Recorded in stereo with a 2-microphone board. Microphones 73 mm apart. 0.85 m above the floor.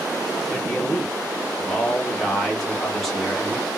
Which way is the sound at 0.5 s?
5° left (ahead or behind).